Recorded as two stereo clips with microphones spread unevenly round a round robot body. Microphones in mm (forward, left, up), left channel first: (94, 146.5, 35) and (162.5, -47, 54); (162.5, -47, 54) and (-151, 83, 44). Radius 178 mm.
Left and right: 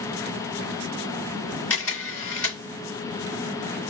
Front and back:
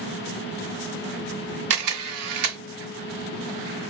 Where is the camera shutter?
170° right, 2.5 m.